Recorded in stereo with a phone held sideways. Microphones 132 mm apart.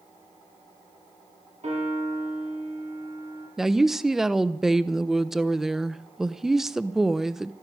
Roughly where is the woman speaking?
Centre.